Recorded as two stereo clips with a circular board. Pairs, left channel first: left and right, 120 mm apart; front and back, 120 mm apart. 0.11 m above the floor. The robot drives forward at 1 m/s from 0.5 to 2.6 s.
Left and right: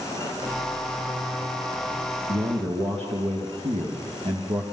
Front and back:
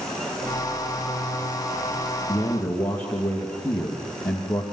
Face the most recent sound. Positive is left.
turn(degrees=-70)